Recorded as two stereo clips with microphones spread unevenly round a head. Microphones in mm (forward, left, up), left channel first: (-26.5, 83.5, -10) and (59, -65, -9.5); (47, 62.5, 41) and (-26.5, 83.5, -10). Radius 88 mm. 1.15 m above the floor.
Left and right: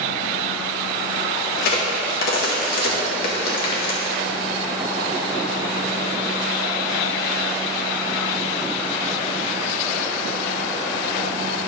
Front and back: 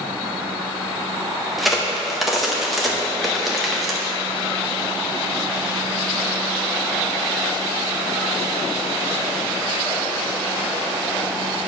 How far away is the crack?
About 1.7 m.